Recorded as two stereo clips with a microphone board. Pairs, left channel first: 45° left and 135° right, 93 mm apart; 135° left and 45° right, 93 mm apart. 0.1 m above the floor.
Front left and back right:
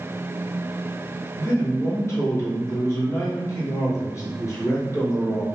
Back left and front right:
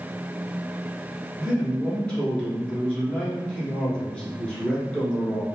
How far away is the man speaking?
About 1.3 m.